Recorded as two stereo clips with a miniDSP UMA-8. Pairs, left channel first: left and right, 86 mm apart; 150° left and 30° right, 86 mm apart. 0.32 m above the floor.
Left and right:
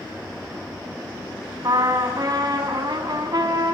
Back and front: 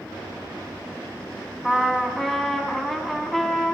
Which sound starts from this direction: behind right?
A trumpet, at 1.6 s.